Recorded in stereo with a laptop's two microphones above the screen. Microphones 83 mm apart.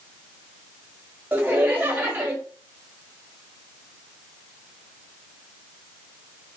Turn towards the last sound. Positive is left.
turn(degrees=-20)  # may be behind; listen again after turning